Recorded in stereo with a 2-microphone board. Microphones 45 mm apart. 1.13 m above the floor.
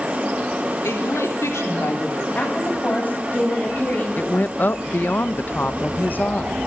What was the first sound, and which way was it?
A woman speaking, 75° left (ahead or behind).